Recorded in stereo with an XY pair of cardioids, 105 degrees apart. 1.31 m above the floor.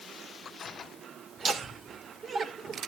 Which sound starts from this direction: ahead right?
Laughter, at 1.4 s.